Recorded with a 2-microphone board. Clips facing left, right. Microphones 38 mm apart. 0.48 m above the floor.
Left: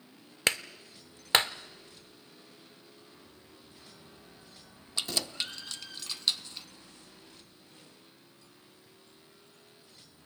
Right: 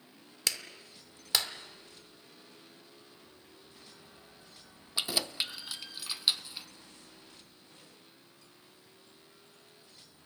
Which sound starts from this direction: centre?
Keys jangling, at 5.0 s.